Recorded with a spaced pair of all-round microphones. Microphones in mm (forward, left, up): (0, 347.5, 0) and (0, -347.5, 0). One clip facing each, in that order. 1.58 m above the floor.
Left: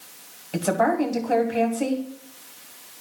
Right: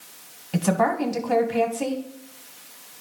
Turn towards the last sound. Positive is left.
turn(degrees=-30)  # may be behind; listen again after turning